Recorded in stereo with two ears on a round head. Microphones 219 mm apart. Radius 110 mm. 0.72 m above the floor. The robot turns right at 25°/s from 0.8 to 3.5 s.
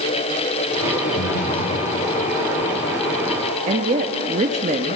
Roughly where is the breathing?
Left.